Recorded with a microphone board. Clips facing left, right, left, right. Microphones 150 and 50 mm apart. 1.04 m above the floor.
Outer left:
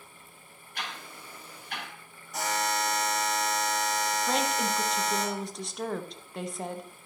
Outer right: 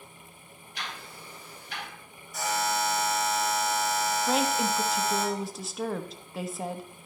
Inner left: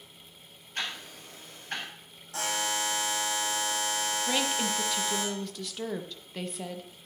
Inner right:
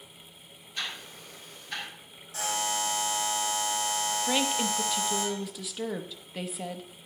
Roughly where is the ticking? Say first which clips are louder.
Outer left 1 dB, inner left 1 dB; left.